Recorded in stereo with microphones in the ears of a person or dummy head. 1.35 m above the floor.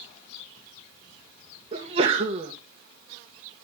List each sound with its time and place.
1.7 s a sneeze: 25° right (ahead or behind), 1.4 m